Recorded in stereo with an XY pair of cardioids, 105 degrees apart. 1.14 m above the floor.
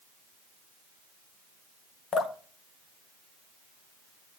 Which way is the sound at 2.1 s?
60° left.